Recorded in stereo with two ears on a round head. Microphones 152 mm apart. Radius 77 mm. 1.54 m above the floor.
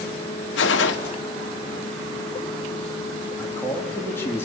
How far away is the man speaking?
About 2.5 m.